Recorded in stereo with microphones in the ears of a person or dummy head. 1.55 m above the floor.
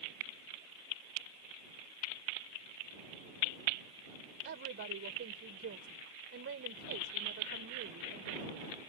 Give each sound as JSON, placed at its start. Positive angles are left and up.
{"t": 4.5, "sound": "a woman speaking", "side_deg": -60}